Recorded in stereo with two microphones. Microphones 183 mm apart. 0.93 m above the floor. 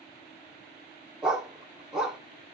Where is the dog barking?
5° right (ahead or behind), 0.5 m.